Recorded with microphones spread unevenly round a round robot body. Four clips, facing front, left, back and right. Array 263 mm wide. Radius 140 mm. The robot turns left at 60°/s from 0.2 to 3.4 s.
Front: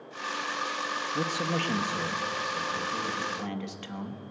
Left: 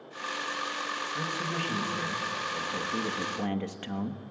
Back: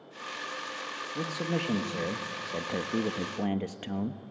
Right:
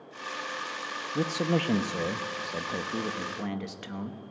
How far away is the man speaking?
About 1.2 m.